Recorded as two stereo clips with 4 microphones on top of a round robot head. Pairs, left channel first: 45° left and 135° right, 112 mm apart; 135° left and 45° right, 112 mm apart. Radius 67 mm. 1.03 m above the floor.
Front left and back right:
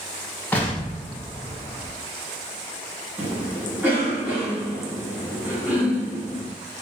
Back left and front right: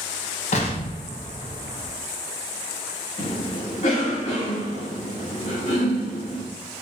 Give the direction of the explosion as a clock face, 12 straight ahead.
8 o'clock.